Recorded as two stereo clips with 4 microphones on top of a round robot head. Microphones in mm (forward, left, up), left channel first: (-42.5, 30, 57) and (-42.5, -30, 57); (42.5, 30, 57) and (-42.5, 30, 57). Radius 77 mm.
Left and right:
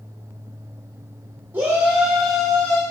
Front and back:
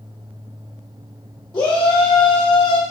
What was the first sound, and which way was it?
A shout, 55° right.